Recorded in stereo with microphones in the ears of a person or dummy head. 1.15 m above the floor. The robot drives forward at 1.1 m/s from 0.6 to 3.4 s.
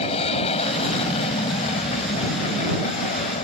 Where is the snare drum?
No snare drum in this recording.